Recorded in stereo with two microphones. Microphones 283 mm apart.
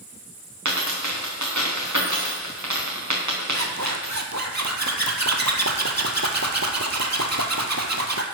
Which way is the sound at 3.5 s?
75° right (ahead or behind).